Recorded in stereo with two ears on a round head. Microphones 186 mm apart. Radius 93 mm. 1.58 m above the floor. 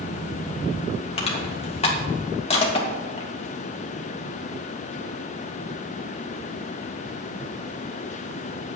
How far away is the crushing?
About 3 m.